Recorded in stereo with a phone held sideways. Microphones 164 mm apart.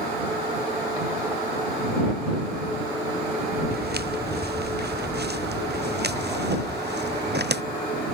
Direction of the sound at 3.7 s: 75° right (ahead or behind).